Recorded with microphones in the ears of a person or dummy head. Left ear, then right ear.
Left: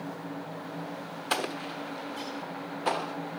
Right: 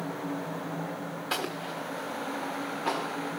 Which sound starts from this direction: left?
An explosion, at 1.3 s.